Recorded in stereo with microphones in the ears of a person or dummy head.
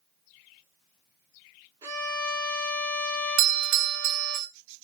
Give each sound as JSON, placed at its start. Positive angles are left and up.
{"t": 1.8, "sound": "a violin", "side_deg": -20, "distance_m": 0.8}
{"t": 3.4, "sound": "a doorbell", "side_deg": -45, "distance_m": 0.6}